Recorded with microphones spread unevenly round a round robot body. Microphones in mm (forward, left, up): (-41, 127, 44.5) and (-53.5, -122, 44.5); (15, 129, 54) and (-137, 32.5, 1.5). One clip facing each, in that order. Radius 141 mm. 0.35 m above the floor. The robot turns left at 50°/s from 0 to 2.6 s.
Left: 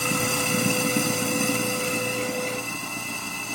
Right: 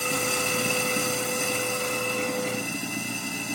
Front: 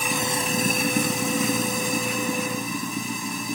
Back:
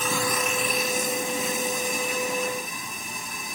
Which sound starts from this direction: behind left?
Running water, at 0.0 s.